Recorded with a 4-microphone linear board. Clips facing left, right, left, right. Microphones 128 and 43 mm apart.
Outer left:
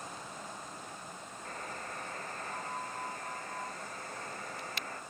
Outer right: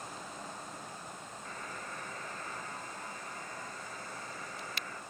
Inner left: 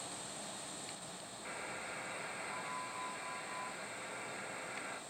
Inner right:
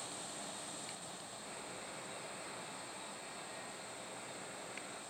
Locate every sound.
1.4 s a buzzer: 50° left (ahead or behind), 1.1 m